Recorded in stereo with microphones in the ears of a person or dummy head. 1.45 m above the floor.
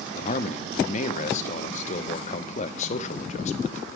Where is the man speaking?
30° left (ahead or behind), 0.5 m.